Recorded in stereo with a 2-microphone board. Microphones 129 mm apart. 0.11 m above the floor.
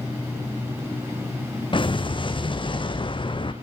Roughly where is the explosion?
Left.